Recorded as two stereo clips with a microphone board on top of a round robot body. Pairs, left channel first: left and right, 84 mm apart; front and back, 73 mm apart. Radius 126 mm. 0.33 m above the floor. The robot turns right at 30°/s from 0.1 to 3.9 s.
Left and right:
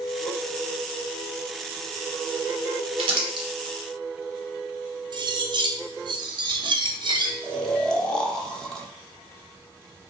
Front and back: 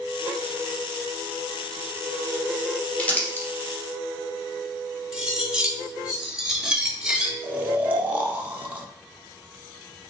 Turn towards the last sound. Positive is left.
turn(degrees=155)